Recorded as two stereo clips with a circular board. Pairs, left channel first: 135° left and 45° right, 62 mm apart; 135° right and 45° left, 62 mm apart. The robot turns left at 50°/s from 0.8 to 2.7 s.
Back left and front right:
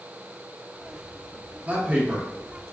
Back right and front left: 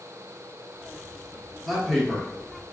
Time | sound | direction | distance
1.6 | a man speaking | 40° right | 1.2 m